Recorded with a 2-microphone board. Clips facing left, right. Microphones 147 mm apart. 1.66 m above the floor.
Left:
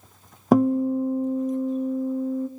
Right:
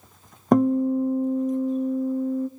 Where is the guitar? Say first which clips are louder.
Even; 5° left (ahead or behind), 0.5 m.